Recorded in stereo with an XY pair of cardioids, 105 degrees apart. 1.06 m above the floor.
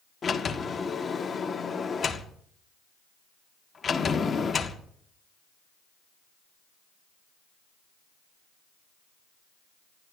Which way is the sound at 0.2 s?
35° left.